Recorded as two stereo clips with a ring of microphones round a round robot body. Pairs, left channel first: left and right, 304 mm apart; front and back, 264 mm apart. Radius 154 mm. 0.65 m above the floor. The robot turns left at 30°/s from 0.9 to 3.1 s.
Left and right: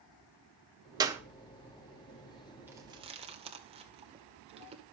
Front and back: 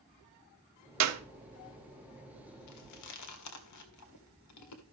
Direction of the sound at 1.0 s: 165° right.